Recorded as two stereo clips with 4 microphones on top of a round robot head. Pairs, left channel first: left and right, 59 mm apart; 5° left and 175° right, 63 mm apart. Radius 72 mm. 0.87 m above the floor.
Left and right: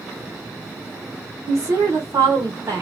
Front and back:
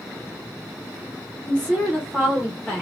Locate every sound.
1.5 s a woman speaking: 75° right, 1.0 m